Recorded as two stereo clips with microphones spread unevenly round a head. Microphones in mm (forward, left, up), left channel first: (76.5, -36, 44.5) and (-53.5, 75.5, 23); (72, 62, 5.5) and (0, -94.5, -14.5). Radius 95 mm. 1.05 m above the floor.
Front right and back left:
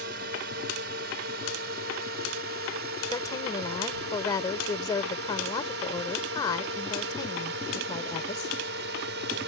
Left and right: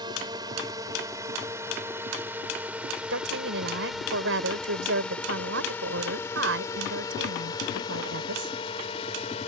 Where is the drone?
175° left; by 9.5 s 125° left.